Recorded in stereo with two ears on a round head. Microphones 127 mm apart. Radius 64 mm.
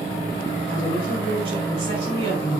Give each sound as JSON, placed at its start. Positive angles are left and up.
{"t": 0.7, "sound": "a woman speaking", "side_deg": -40, "distance_m": 6.5}